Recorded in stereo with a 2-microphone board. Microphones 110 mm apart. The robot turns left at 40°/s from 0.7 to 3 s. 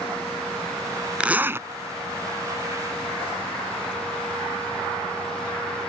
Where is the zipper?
10° right (ahead or behind); by 1.7 s 25° right (ahead or behind).